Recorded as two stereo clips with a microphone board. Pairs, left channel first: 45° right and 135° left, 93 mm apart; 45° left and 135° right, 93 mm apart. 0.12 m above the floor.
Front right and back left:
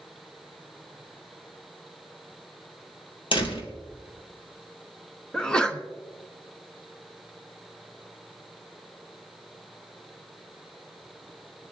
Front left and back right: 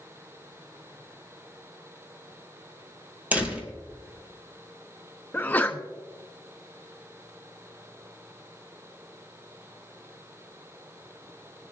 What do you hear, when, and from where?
3.3 s a door slam: 65° right, 2.5 m
5.3 s a sneeze: 20° left, 1.1 m